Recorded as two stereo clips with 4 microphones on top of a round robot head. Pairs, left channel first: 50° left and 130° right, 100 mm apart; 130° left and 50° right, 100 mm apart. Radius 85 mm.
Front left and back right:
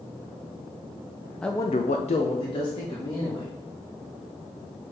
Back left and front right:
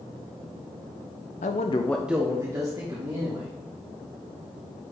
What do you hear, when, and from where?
1.4 s a man speaking: 135° left, 0.7 m; by 3.5 s straight ahead, 2.5 m